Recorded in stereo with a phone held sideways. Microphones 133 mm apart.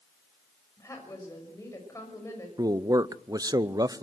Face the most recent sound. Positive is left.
turn(degrees=-25)  # may be behind; listen again after turning